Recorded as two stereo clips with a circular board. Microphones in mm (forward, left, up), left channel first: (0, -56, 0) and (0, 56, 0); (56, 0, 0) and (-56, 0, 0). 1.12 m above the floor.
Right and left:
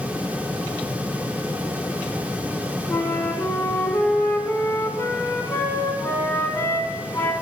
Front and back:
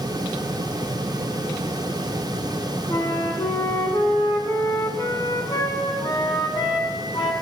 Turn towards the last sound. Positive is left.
turn(degrees=-30)